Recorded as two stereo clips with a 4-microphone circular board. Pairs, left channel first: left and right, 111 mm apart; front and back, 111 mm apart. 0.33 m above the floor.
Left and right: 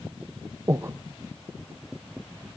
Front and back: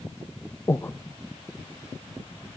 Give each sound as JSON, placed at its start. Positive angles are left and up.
{"t": 0.7, "sound": "breathing", "azimuth_deg": -45, "distance_m": 0.7}